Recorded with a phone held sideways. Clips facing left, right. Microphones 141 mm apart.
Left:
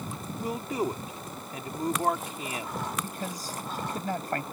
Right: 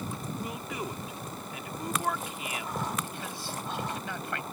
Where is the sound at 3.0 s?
40° left (ahead or behind).